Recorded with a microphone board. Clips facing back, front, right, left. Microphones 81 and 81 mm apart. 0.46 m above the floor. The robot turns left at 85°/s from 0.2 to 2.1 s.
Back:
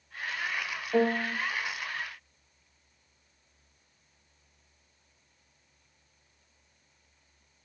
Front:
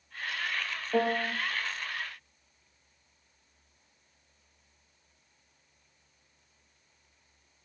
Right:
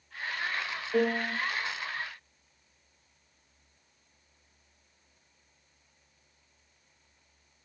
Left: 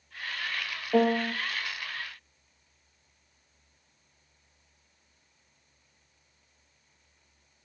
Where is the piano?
80° left, 0.7 m; by 1.3 s 45° left, 0.7 m.